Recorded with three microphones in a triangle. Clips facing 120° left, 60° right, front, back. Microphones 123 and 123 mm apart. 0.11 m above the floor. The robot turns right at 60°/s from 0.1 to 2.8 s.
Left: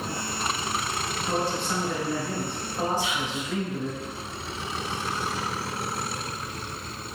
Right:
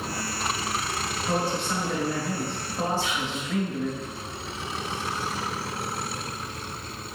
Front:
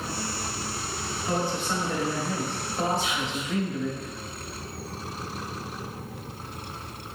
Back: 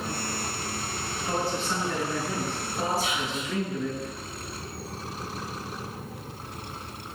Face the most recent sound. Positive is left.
turn(degrees=180)